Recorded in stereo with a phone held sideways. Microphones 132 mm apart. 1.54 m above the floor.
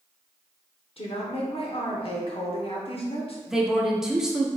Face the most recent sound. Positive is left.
turn(degrees=-5)  # may be behind; listen again after turning